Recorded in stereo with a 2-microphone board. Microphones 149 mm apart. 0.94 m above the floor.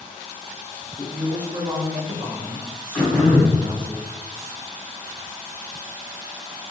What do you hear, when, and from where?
1.0 s a woman speaking: 10° left (ahead or behind), 0.5 m; by 3.9 s 70° right (ahead or behind), 1.3 m
2.9 s throat clearing: 10° left (ahead or behind), 1.6 m